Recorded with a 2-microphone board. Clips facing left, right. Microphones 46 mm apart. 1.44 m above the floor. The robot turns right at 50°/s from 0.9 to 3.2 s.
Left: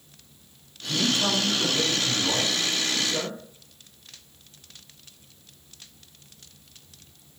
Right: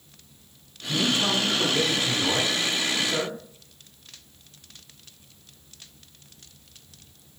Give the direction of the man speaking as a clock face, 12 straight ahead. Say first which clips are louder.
Right 1 dB; 6 o'clock.